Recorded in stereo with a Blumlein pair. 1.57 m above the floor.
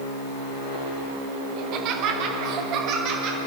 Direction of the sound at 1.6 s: 40° right.